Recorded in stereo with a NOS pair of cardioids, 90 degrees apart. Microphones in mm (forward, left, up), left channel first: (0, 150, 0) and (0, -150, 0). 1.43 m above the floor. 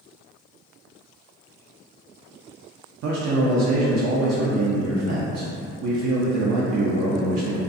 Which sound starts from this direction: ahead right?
A man speaking, at 3.0 s.